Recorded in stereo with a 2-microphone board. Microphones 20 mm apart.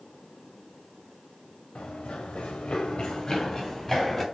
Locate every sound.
1.8 s running footsteps: 70° left (ahead or behind), 0.9 m; by 4.2 s 10° left (ahead or behind), 1.3 m